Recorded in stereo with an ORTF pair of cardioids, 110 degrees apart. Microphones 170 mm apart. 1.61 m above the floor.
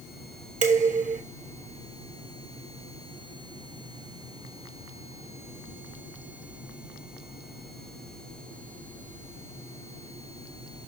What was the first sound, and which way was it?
Dishes clattering, 45° right.